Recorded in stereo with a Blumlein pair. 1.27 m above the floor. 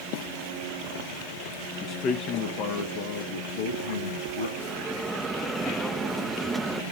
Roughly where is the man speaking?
Ahead left.